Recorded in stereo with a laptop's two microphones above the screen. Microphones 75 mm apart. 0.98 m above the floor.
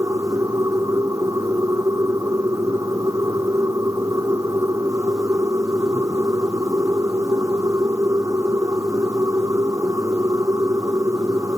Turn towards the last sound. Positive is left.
turn(degrees=-45)  # may be behind; listen again after turning